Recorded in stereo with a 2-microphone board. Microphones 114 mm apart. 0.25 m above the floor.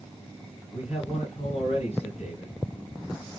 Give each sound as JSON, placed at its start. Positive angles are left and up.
{"t": 0.7, "sound": "a man speaking", "side_deg": 65, "distance_m": 2.5}